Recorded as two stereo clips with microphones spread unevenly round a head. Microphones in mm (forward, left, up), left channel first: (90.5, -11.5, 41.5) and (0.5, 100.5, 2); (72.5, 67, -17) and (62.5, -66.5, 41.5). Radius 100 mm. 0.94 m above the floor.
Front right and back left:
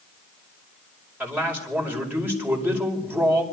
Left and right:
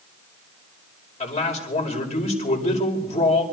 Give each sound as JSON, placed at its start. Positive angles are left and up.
{"t": 1.2, "sound": "a man speaking", "azimuth_deg": 50, "distance_m": 4.5}